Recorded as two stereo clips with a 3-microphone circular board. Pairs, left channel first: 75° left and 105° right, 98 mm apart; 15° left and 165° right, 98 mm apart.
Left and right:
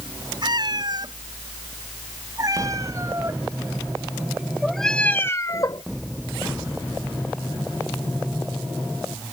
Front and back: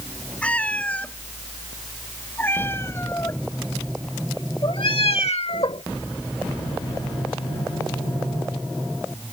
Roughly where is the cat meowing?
Ahead right.